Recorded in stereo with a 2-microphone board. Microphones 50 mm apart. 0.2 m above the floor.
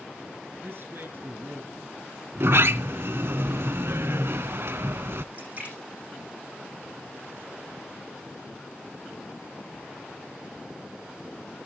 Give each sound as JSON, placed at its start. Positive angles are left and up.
{"t": 0.6, "sound": "a man speaking", "side_deg": -50, "distance_m": 2.0}
{"t": 2.4, "sound": "a sliding door", "side_deg": -60, "distance_m": 0.6}
{"t": 5.3, "sound": "a splash", "side_deg": -35, "distance_m": 7.0}